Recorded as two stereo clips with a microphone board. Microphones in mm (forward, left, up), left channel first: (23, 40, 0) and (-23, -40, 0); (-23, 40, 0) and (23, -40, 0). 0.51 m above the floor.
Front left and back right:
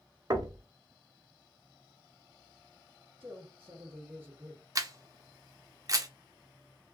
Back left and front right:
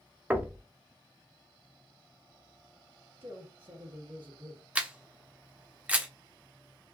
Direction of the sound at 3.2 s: 55° right.